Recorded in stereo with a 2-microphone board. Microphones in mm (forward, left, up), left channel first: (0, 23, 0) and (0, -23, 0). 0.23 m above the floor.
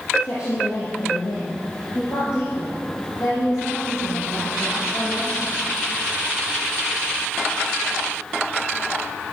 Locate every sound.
0.2 s a woman speaking: 50° left (ahead or behind), 4 m; by 5.5 s 30° left (ahead or behind), 6.5 m